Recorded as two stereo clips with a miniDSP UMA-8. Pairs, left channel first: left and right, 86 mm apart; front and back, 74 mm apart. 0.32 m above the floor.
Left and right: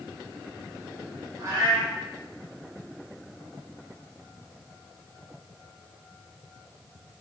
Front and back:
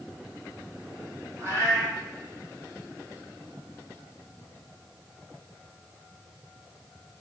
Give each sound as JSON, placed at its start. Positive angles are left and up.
{"t": 1.4, "sound": "a cat meowing", "azimuth_deg": -130, "distance_m": 1.4}